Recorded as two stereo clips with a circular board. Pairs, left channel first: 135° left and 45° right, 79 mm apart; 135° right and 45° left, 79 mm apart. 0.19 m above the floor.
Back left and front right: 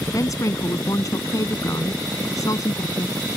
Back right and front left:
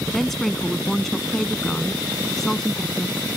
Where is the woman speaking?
140° left.